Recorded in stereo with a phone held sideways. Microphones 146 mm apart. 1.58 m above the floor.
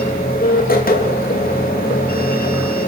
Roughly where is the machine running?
Left.